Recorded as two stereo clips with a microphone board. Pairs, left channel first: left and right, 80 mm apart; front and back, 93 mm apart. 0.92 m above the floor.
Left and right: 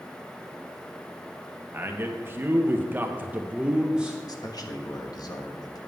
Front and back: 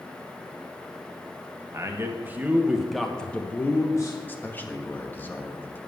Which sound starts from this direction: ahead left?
A man speaking, at 4.3 s.